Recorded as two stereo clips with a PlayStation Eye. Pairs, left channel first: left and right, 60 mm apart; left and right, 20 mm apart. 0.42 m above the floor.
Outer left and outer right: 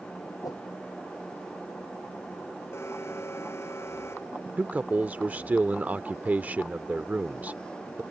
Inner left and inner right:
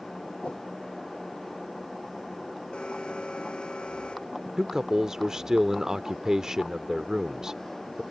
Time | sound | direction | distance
0.4 | a whoosh | 85° left | ?
2.7 | an alarm | 45° left (ahead or behind) | ?
4.6 | a man speaking | 25° right (ahead or behind) | ?